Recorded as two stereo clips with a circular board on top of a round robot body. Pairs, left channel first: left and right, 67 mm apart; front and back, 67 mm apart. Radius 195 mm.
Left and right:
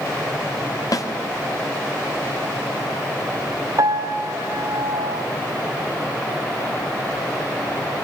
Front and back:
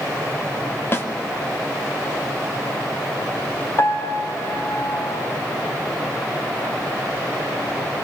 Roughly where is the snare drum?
Ahead left.